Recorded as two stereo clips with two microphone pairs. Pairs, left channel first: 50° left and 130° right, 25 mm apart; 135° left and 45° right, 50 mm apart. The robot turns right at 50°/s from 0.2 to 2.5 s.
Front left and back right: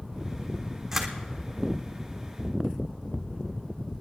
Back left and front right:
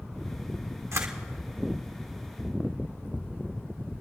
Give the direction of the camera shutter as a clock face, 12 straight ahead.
2 o'clock.